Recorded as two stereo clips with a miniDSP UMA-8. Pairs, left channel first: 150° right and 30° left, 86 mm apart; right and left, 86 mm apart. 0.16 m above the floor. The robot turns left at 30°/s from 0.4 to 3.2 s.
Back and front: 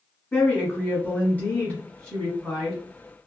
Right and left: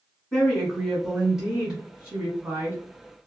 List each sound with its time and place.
0.3 s a woman speaking: 160° right, 1.5 m; by 2.8 s 125° left, 1.5 m